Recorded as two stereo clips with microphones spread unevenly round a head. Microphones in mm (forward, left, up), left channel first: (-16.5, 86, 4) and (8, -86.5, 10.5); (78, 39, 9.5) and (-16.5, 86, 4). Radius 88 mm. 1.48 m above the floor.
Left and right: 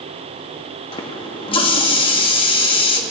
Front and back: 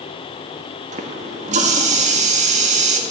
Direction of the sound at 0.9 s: 160° left.